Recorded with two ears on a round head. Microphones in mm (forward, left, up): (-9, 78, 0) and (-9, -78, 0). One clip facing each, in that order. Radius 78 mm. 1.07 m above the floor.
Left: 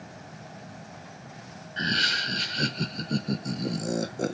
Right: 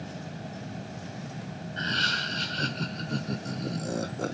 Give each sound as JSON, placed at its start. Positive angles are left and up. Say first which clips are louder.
{"t": 1.8, "sound": "laughter", "louder": "left 3 dB", "side_deg": 15, "distance_m": 0.6}